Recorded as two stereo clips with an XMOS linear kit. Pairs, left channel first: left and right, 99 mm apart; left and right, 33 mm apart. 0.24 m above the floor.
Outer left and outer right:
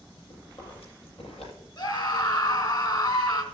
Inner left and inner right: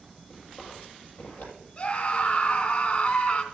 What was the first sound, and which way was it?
Chewing, 70° left (ahead or behind).